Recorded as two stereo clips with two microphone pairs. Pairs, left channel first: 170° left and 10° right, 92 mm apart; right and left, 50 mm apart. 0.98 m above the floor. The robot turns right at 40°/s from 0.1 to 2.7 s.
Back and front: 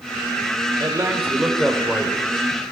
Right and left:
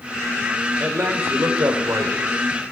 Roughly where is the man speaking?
Ahead left.